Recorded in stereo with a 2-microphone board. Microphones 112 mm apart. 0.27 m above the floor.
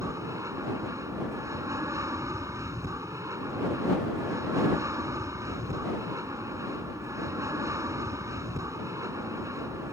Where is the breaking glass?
I don't hear breaking glass.